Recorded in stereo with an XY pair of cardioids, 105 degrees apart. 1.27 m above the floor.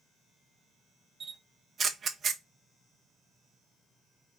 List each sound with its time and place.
1.2 s a camera shutter: 40° right, 0.5 m